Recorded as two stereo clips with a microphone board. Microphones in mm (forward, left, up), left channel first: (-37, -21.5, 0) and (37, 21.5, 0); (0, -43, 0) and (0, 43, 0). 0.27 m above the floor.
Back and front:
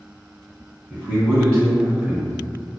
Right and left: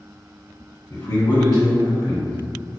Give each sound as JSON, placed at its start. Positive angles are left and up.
{"t": 0.9, "sound": "a man speaking", "azimuth_deg": -75, "distance_m": 1.3}